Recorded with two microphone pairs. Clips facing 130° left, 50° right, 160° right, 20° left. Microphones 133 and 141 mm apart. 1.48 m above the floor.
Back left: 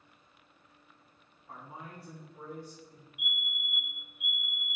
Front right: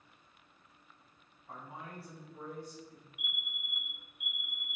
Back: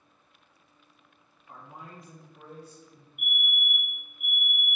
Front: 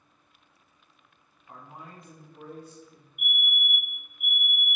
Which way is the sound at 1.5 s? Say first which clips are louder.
Even, even; 20° right.